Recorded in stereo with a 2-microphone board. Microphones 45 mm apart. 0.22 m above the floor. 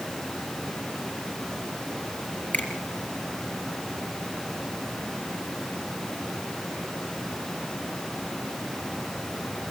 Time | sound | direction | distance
2.5 | a finger snap | 40° left (ahead or behind) | 3 m